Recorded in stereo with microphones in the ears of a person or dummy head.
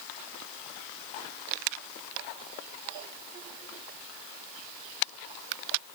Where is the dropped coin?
No dropped coin in this recording.